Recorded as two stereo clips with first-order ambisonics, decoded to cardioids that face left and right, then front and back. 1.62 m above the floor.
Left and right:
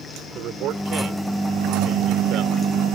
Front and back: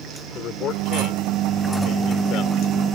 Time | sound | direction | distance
0.3 | a man speaking | 50° right | ?